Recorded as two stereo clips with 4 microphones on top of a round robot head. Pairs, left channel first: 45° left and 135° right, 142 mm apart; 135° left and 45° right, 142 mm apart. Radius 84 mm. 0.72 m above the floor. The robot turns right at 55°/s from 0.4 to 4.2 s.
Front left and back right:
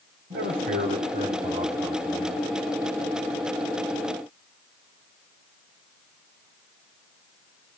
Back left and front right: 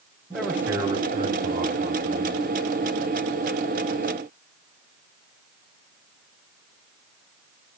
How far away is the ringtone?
No ringtone in this recording.